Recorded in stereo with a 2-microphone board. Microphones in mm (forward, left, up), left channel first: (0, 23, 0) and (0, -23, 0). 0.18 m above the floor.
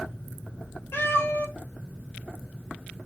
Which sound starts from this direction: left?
A cat meowing, at 0.9 s.